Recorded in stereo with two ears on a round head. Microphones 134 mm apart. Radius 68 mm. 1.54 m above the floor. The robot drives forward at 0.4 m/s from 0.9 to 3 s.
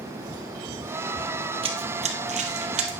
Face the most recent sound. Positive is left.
turn(degrees=-45)  # may be behind; listen again after turning